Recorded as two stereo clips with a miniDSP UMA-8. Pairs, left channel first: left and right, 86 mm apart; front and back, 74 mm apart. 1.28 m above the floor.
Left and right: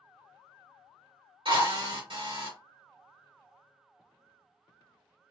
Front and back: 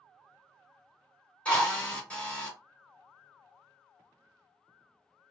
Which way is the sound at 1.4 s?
75° right.